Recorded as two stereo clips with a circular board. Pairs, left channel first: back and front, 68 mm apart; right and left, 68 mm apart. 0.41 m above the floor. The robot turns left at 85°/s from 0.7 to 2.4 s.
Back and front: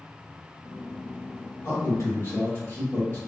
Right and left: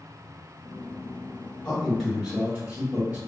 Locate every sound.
1.6 s a man speaking: 145° right, 1.5 m; by 3.2 s 150° left, 1.5 m